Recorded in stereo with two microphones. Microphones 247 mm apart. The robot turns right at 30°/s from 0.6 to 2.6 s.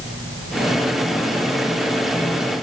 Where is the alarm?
I don't hear an alarm.